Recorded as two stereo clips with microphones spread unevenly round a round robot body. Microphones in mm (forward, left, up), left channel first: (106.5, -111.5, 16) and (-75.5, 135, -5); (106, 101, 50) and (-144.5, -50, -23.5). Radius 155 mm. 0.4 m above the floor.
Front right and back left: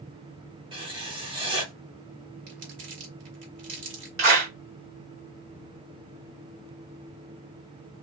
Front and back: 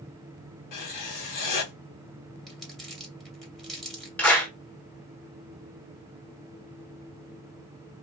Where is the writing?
55° left, 1.4 m.